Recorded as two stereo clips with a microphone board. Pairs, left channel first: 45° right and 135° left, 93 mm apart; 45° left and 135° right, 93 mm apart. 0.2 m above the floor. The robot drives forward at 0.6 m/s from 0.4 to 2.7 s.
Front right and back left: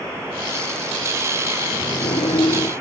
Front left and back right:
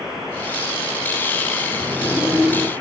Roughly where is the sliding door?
Ahead right.